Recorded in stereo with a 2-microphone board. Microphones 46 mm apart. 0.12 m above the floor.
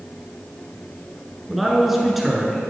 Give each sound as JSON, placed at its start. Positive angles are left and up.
{"t": 1.5, "sound": "a man speaking", "side_deg": 0, "distance_m": 1.2}